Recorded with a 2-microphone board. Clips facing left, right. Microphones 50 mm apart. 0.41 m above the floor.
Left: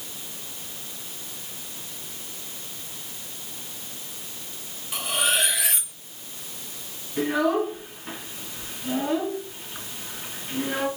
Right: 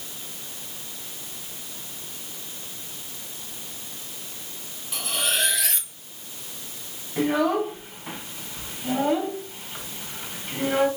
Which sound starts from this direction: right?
A child speaking, at 7.2 s.